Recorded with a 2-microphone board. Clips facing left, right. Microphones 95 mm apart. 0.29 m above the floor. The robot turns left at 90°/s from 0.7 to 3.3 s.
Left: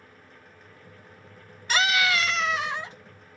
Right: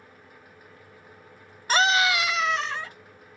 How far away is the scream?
About 1.1 m.